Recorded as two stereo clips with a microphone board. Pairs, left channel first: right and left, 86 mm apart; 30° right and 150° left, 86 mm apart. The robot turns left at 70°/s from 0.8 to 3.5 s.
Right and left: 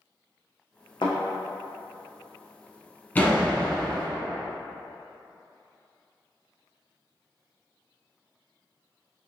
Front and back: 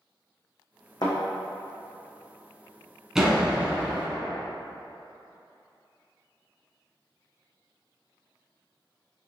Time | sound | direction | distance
1.0 | a thud | 65° right | 1.5 m
3.1 | a door slam | 130° right | 1.0 m